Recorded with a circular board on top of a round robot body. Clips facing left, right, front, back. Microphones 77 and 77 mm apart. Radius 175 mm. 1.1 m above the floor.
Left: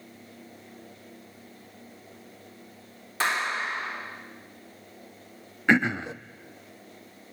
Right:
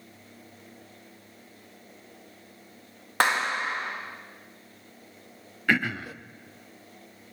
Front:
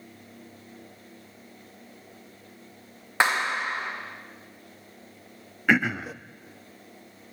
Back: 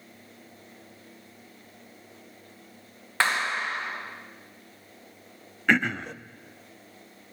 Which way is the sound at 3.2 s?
70° right.